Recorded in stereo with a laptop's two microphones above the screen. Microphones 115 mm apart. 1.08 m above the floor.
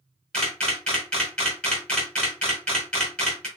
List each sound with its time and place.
0.3 s a camera shutter: 10° left (ahead or behind), 1.2 m